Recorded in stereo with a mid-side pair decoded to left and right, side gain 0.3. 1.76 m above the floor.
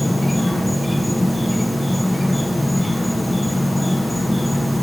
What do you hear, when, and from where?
0.0 s an insect: 5° left, 1.6 m